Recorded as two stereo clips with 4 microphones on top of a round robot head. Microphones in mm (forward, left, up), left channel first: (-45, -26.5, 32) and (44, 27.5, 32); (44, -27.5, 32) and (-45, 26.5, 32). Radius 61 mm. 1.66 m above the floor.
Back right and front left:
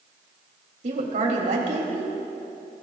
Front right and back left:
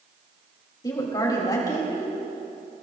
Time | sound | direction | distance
0.8 | a woman speaking | 25° left | 3 m